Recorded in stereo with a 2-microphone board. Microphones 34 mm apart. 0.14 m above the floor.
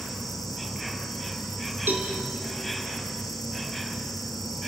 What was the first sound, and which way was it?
An insect, 10° right (ahead or behind).